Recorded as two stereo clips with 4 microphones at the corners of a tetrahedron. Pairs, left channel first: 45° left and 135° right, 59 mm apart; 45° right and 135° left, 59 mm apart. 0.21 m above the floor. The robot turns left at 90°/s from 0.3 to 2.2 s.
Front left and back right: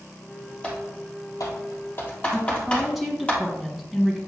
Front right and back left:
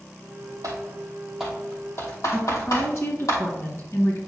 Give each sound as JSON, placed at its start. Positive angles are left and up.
{"t": 0.6, "sound": "typing on a keyboard", "azimuth_deg": 115, "distance_m": 2.5}
{"t": 2.3, "sound": "a woman speaking", "azimuth_deg": -45, "distance_m": 2.5}